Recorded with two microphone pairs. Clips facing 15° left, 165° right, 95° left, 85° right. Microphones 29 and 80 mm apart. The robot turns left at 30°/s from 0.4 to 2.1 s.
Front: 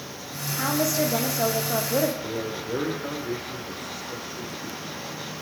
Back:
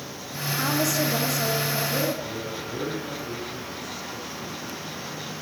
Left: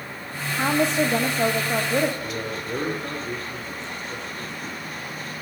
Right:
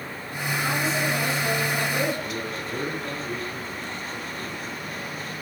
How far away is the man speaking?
About 8.5 m.